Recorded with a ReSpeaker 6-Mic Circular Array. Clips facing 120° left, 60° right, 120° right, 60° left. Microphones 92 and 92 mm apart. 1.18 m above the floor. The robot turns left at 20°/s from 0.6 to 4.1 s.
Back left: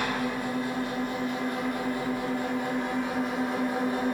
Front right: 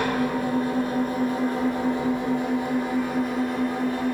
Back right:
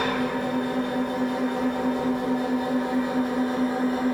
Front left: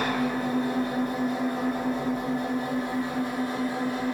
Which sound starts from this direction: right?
An engine running, at 0.0 s.